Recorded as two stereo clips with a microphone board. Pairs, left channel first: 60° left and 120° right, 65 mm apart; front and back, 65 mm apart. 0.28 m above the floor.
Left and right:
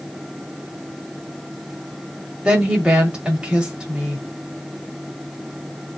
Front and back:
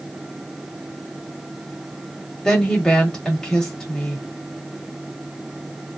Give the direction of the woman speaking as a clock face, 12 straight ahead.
2 o'clock.